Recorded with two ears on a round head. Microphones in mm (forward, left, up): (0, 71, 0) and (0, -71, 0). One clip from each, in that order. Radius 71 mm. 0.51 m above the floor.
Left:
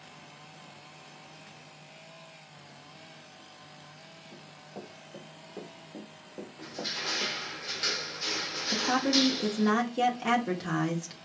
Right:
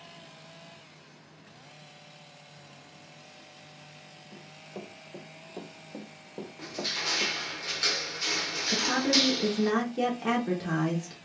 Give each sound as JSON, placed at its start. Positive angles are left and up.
{"t": 4.3, "sound": "running footsteps", "side_deg": -20, "distance_m": 1.7}
{"t": 6.6, "sound": "crushing", "side_deg": -15, "distance_m": 1.0}
{"t": 8.7, "sound": "a woman speaking", "side_deg": 20, "distance_m": 0.8}